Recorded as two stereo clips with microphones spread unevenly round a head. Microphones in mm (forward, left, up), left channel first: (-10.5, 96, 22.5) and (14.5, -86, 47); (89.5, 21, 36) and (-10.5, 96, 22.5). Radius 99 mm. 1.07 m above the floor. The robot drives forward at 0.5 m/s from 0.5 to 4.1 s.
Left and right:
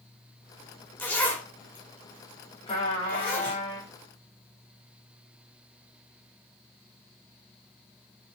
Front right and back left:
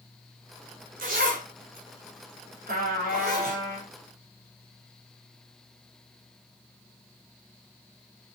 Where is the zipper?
Straight behind, 2 m.